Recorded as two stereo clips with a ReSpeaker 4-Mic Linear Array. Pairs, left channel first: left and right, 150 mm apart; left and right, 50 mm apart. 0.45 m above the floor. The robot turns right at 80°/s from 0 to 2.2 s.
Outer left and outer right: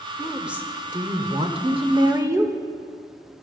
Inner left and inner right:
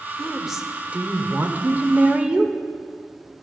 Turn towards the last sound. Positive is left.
turn(degrees=-30)